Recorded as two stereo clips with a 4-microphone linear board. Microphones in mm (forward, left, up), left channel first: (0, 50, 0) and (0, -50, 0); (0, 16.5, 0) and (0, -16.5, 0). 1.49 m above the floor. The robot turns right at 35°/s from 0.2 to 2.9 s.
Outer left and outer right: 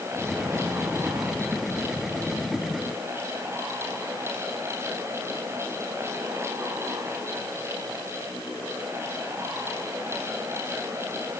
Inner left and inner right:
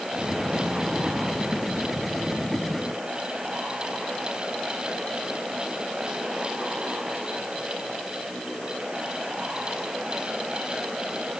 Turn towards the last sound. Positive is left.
No sound to turn to.